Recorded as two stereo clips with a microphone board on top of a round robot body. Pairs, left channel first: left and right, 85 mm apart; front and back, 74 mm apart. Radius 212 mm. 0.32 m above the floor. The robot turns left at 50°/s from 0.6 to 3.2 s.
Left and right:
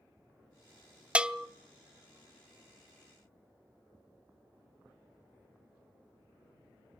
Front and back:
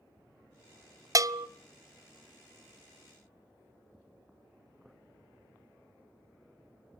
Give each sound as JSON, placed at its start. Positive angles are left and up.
{"t": 1.1, "sound": "a bell", "azimuth_deg": -160, "distance_m": 1.0}